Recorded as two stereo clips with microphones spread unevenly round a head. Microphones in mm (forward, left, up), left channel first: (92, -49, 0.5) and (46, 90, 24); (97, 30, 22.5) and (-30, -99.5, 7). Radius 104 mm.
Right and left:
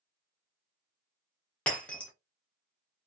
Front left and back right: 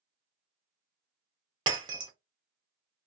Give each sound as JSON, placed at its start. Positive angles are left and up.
{"t": 1.7, "sound": "breaking glass", "azimuth_deg": -170, "distance_m": 0.5}